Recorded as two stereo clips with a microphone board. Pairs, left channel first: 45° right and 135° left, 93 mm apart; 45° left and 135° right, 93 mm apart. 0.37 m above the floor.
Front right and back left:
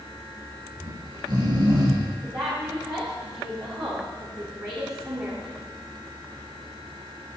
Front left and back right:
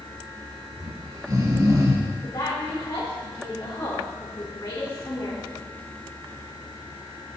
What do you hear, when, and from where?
0.8 s snoring: 175° left, 2.5 m
2.2 s a woman speaking: 100° left, 5 m